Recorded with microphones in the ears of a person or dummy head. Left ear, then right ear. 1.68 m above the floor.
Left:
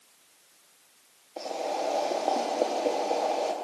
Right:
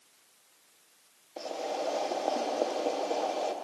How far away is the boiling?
About 1.6 m.